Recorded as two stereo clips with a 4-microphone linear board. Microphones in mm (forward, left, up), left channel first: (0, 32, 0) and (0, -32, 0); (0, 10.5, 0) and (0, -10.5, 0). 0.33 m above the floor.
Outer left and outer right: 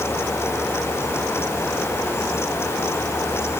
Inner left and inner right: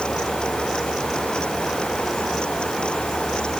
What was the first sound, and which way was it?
Only background noise.